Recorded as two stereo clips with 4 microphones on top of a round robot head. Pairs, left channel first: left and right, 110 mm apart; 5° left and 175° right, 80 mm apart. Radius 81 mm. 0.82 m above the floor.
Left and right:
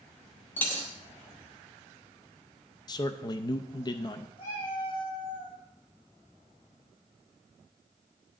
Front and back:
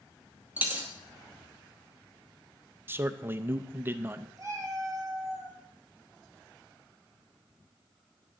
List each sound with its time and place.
0.6 s a dropped coin: 145° left, 0.8 m
2.9 s a man speaking: 130° left, 0.5 m
4.4 s a cat meowing: 135° left, 6 m